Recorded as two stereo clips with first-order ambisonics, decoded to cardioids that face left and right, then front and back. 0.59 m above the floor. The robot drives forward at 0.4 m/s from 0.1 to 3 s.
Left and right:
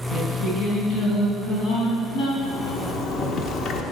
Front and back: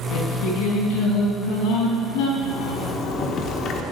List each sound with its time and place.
0.1 s singing: 25° left, 4.5 m; by 2.3 s 30° left, 4 m
2.4 s a zipper: 35° left, 1.5 m; by 3.8 s 40° left, 1.3 m